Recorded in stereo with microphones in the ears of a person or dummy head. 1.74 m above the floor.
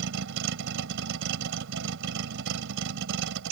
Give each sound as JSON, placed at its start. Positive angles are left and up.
{"t": 0.0, "sound": "a vehicle", "side_deg": -65}